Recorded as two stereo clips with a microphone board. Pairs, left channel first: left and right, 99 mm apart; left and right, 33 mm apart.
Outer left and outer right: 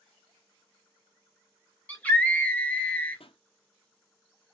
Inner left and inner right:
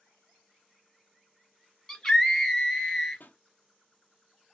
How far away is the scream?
About 2 m.